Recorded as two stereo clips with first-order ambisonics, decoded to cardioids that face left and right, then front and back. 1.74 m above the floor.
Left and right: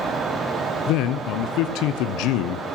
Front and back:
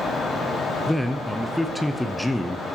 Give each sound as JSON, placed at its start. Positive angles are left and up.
{"t": 0.9, "sound": "a man speaking", "azimuth_deg": 85, "distance_m": 0.6}